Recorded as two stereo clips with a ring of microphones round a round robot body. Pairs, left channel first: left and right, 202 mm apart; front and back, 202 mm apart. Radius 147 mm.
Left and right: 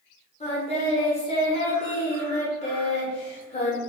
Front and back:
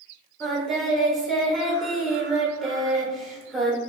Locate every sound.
0.4 s singing: 90° left, 1.2 m